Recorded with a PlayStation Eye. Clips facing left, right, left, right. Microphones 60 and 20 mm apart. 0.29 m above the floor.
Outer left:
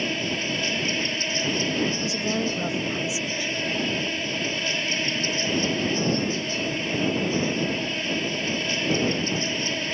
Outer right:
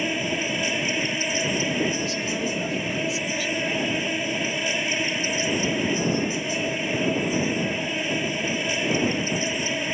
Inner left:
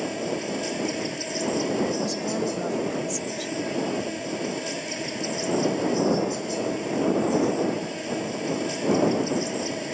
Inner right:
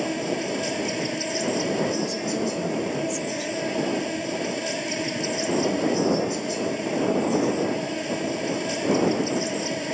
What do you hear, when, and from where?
0.0 s an insect: 15° right (ahead or behind)
1.9 s a woman speaking: 20° left (ahead or behind)